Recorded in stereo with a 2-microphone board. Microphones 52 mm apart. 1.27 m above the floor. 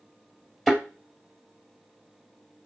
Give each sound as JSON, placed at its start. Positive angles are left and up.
{"t": 0.7, "sound": "a thud", "side_deg": 0, "distance_m": 1.7}